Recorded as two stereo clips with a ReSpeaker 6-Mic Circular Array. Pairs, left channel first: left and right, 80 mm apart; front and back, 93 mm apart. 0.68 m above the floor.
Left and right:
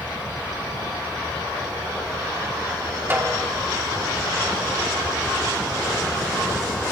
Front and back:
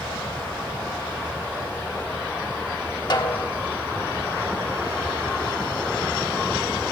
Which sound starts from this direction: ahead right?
A snare drum, at 3.1 s.